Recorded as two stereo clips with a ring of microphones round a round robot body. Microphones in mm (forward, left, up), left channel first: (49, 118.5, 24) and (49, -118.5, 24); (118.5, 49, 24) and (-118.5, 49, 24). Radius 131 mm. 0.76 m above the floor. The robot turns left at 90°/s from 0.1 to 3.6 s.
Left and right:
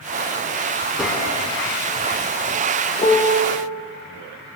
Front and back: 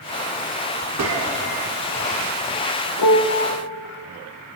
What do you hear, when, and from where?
1.0 s a gunshot: 175° right, 1.4 m; by 1.4 s 150° left, 1.4 m
3.0 s a piano: 25° left, 0.7 m; by 3.5 s 20° right, 0.7 m